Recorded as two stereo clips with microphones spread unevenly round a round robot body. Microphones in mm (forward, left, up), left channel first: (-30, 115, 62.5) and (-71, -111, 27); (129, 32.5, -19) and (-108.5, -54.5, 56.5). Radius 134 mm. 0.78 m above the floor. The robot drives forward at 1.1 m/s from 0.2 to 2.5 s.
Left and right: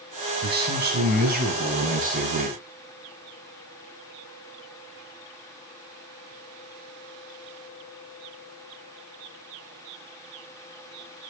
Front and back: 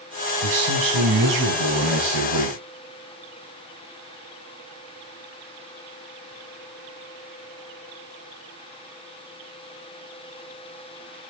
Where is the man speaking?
145° right, 6.5 m; by 2.6 s 155° right, 8.5 m.